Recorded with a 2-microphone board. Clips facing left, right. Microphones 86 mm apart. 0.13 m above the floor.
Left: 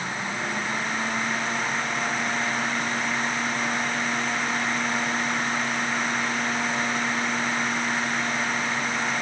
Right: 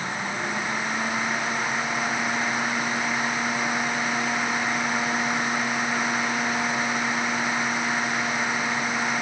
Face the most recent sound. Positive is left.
No sound to turn to.